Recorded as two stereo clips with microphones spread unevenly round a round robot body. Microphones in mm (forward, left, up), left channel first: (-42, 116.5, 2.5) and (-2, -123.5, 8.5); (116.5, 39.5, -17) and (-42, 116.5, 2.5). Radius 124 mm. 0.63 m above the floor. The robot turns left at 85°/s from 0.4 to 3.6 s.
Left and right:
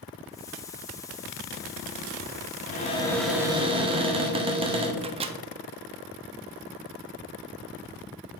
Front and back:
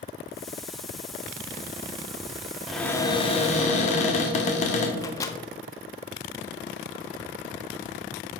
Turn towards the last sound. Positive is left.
turn(degrees=-45)